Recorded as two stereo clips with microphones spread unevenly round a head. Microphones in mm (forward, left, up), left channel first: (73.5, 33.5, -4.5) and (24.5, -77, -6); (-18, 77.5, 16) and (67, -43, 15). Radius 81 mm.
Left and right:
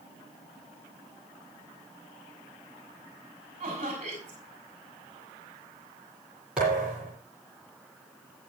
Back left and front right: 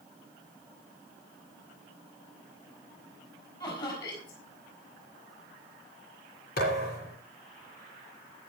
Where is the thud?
160° left, 8.5 m.